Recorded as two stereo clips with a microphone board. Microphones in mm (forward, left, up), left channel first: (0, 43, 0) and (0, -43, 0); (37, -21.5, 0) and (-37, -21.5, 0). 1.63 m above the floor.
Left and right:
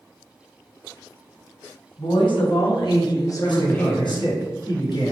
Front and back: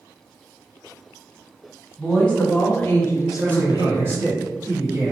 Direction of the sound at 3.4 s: 120° left.